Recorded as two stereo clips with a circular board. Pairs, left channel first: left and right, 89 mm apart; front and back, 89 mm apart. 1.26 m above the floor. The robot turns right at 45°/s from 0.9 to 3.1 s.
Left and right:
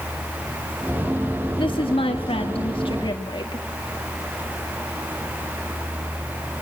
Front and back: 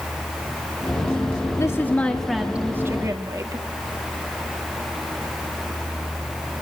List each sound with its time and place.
1.6 s a woman speaking: 60° left, 1.9 m; by 3.6 s 125° left, 1.9 m